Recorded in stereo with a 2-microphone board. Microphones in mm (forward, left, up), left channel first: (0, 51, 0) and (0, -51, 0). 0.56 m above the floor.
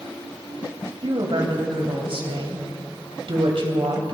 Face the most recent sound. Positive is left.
turn(degrees=-65)  # may be behind; listen again after turning